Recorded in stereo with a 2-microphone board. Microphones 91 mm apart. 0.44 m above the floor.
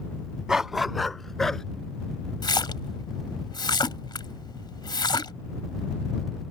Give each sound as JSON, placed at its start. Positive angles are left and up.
{"t": 0.5, "sound": "a dog barking", "side_deg": -10}
{"t": 2.4, "sound": "a splash", "side_deg": 55}